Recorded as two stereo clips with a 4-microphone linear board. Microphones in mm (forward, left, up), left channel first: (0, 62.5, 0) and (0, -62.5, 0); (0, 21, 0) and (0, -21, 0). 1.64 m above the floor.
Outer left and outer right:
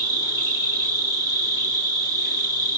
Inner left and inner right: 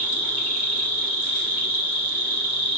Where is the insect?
30° right (ahead or behind), 1.8 m.